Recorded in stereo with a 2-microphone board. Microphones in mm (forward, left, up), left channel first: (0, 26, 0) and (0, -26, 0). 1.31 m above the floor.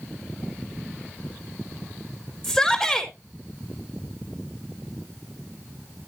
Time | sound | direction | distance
2.4 | a shout | 5° left (ahead or behind) | 3.5 m